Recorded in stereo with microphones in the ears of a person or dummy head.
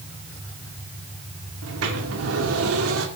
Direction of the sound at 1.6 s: 80° right.